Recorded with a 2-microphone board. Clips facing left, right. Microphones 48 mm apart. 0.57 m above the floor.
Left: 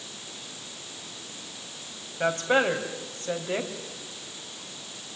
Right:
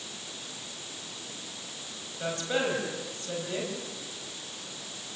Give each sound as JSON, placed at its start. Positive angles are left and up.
{"t": 2.2, "sound": "a woman speaking", "side_deg": 45, "distance_m": 4.0}